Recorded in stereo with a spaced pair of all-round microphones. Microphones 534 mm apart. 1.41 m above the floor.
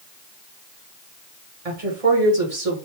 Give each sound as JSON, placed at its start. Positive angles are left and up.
{"t": 1.6, "sound": "a woman speaking", "side_deg": -85, "distance_m": 1.5}